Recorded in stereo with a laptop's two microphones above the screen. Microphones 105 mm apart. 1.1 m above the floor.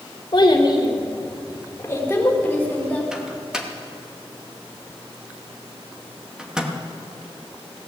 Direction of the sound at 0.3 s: 50° left (ahead or behind).